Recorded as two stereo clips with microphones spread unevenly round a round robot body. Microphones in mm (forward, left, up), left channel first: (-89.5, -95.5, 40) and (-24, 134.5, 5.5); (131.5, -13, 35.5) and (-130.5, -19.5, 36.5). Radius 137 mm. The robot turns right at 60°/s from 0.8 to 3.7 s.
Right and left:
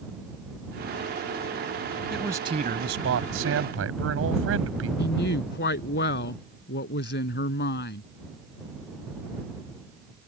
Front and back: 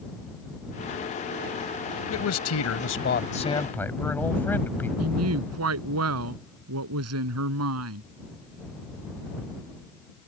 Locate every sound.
2.1 s a man speaking: 15° right; by 4.9 s 85° left
5.0 s a woman speaking: 150° right